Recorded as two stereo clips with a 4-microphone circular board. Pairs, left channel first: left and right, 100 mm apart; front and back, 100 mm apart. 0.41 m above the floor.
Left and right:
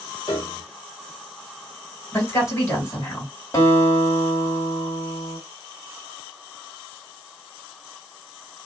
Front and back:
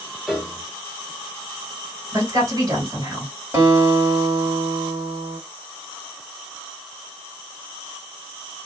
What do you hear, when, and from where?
0.3 s a piano: 100° left, 1.0 m
2.1 s a woman speaking: 145° left, 2.0 m
3.5 s a guitar: 130° left, 1.8 m